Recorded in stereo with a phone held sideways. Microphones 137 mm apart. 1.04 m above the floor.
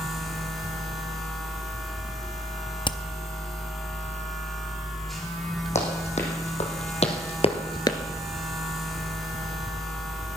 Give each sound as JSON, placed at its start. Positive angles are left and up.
{"t": 0.0, "sound": "a machine running", "side_deg": 0, "distance_m": 2.5}
{"t": 2.9, "sound": "hammering", "side_deg": 35, "distance_m": 0.5}
{"t": 5.8, "sound": "running footsteps", "side_deg": 55, "distance_m": 4.0}